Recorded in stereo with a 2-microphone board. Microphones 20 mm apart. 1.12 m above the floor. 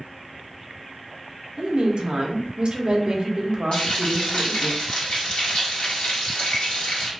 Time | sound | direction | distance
1.6 | a woman speaking | 55° right (ahead or behind) | 0.6 m
3.7 | frying | 80° left | 1.3 m